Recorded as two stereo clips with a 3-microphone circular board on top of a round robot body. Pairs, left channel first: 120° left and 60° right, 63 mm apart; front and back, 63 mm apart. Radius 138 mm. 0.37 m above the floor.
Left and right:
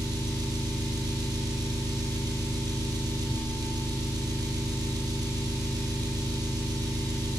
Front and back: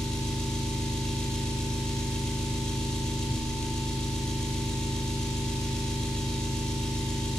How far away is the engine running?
About 4 m.